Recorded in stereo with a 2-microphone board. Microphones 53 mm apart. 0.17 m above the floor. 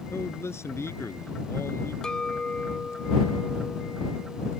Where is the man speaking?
60° left (ahead or behind).